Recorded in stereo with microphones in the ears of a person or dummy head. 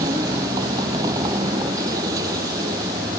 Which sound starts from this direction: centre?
A vehicle, at 0.0 s.